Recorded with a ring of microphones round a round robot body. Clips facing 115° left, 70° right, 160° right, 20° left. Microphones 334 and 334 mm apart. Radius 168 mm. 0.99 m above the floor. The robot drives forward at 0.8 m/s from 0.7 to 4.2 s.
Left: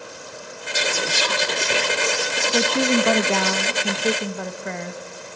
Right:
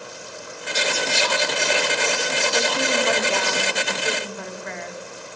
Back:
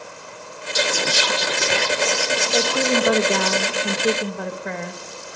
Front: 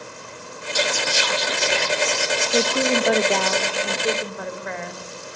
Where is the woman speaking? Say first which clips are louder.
Left 6 dB, even; 90° left, 1.0 m; by 5.0 s 155° left, 1.7 m.